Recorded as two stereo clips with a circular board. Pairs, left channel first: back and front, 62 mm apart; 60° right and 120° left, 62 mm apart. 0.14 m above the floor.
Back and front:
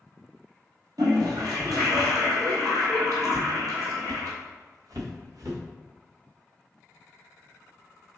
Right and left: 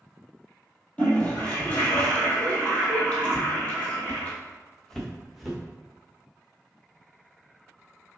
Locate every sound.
1.0 s a toilet flushing: 5° left, 1.5 m
3.3 s footsteps: 40° right, 0.6 m; by 5.6 s 30° left, 1.5 m